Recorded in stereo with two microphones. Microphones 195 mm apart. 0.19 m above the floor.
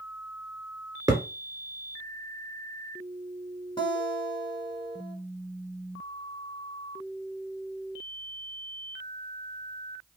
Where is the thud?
20° right (ahead or behind), 1.5 m.